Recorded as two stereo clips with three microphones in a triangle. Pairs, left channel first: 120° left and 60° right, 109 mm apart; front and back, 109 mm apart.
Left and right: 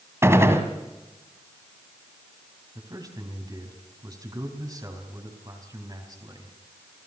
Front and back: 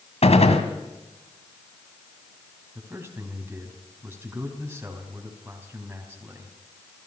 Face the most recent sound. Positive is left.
turn(degrees=-110)